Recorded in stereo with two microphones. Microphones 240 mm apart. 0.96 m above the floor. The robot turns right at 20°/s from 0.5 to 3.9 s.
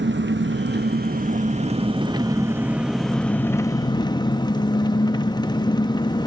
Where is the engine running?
50° right, 0.8 m; by 6.3 s 20° left, 0.8 m.